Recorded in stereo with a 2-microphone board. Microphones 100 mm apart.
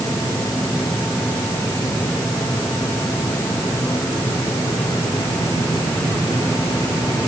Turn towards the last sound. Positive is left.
No sound to turn to.